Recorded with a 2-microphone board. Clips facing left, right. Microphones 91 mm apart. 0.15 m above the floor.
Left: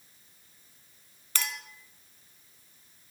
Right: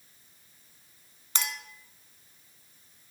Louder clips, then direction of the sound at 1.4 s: Right 1 dB; 20° right (ahead or behind).